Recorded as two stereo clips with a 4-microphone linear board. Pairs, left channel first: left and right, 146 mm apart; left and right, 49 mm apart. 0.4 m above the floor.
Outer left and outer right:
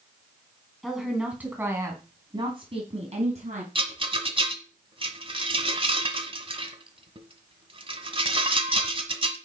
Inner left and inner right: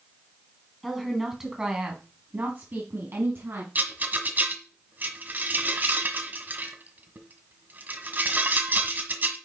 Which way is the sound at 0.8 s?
Centre (ahead or behind).